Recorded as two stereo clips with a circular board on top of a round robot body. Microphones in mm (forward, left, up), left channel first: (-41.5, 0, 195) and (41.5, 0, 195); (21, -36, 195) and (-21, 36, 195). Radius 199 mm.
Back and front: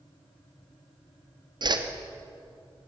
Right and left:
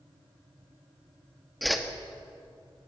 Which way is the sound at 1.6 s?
30° left.